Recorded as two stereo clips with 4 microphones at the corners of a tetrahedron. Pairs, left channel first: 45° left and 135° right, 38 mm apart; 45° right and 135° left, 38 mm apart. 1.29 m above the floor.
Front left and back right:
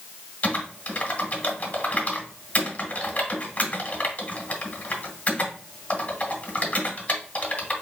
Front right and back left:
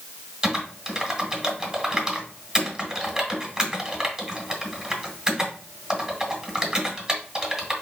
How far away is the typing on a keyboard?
About 1.3 m.